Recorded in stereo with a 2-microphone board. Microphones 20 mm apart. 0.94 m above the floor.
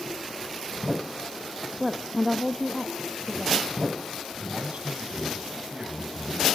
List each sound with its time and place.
1.8 s a woman speaking: 20° right (ahead or behind), 1.1 m; by 3.6 s 25° left (ahead or behind), 1.6 m
4.4 s a man speaking: 80° right, 6.5 m